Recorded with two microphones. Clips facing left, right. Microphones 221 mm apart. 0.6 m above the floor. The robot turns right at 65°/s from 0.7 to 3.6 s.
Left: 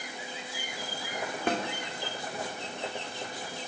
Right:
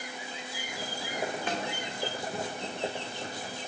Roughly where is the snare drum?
Left.